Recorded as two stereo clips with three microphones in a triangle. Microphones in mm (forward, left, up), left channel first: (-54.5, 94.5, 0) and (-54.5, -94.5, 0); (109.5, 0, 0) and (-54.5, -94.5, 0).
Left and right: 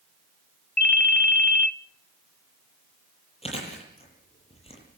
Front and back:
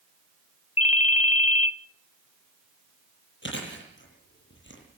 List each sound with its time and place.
0.8 s a ringtone: 80° left, 0.6 m
3.4 s chewing: 35° left, 9.5 m